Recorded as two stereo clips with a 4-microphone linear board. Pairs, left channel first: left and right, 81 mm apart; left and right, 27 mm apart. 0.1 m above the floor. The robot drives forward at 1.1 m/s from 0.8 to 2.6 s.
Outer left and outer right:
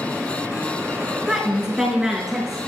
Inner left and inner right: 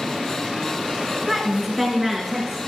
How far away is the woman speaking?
About 1.1 m.